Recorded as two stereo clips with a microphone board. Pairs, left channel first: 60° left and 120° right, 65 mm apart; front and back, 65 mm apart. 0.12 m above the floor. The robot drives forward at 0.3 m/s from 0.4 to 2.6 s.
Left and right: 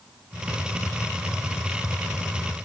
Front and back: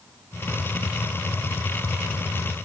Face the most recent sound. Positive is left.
No sound to turn to.